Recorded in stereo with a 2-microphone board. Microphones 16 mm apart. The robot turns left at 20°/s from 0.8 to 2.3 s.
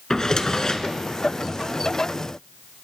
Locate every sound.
0.1 s a drawer: 35° left (ahead or behind), 1.0 m